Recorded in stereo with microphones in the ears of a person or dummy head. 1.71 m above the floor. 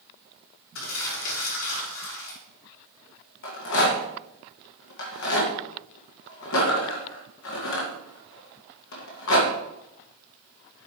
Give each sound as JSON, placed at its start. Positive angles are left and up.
{"t": 0.8, "sound": "crumpling", "side_deg": 80, "distance_m": 5.5}
{"t": 3.4, "sound": "a rattle", "side_deg": 65, "distance_m": 2.0}